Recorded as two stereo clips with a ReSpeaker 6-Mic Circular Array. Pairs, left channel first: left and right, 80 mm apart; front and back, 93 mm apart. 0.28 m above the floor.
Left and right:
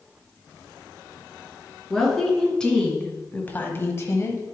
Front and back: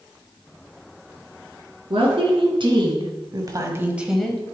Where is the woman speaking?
175° left, 3 m; by 4.4 s 65° left, 1.2 m.